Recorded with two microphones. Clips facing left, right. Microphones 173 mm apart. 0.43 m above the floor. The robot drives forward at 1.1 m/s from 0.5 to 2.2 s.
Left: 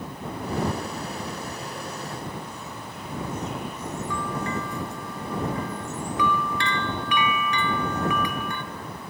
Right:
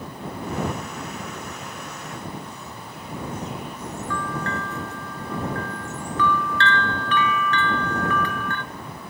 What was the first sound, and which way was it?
A bell, 15° left (ahead or behind).